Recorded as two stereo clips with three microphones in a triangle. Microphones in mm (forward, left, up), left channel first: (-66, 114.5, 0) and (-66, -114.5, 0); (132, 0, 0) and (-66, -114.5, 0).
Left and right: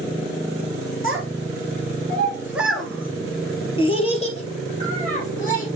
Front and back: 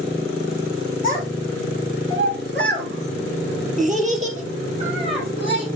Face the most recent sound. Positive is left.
turn(degrees=145)